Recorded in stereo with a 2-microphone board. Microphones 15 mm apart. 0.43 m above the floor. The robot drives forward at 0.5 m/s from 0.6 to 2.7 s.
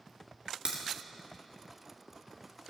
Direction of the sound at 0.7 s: 70° right (ahead or behind).